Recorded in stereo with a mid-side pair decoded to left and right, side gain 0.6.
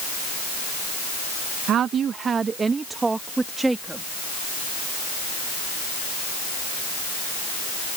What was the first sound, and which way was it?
A woman speaking, 55° right.